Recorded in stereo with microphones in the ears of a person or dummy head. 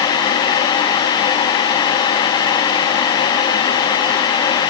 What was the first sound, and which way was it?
Only background noise.